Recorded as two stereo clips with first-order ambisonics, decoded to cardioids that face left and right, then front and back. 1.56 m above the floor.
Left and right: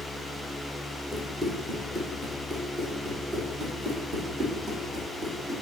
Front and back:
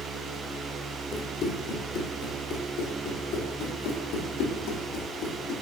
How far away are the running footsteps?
About 1.8 m.